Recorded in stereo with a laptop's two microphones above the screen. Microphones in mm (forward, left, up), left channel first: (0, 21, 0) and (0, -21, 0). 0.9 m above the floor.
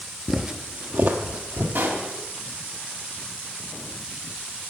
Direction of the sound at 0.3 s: 5° right (ahead or behind).